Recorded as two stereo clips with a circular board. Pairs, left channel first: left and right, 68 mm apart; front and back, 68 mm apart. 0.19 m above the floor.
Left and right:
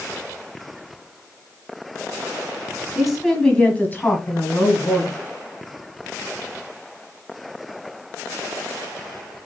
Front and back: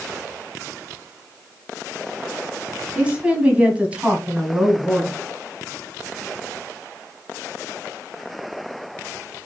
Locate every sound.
3.0 s a woman speaking: 155° right, 1.2 m; by 5.2 s 110° left, 2 m